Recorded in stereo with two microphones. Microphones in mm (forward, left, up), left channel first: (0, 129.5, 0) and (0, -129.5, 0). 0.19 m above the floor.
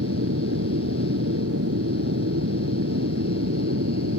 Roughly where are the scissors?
I don't hear scissors.